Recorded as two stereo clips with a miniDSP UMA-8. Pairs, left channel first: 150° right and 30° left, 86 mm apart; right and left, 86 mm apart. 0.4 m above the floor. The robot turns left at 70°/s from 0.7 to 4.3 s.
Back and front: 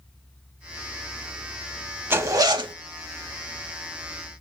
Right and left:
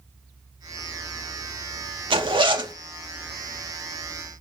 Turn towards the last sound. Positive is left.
turn(degrees=-60)